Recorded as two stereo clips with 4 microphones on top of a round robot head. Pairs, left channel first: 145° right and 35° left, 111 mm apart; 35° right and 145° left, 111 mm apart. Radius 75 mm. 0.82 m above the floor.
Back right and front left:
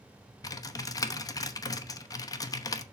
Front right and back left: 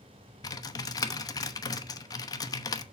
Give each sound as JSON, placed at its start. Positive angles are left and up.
{"t": 0.4, "sound": "typing on a keyboard", "azimuth_deg": -90, "distance_m": 0.9}